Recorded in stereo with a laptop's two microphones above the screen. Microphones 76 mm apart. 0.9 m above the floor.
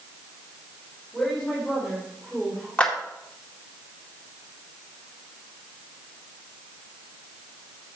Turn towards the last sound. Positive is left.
turn(degrees=15)  # may be behind; listen again after turning